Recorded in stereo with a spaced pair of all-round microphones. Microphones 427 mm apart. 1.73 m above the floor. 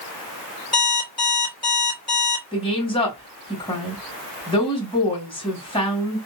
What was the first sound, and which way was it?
An alarm clock, 10° left (ahead or behind).